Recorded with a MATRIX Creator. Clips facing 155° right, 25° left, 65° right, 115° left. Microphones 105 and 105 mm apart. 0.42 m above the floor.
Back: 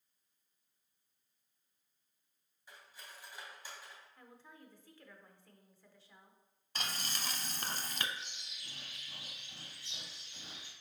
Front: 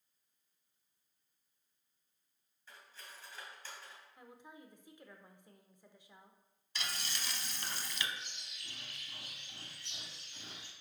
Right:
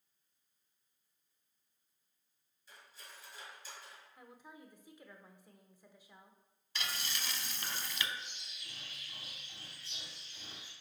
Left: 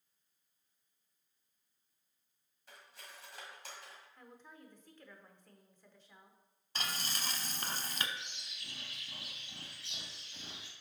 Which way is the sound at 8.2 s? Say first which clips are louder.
Back 1 dB, even; 120° left.